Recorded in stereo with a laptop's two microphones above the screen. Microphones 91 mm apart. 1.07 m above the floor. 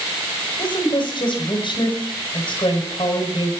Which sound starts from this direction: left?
A woman speaking, at 0.6 s.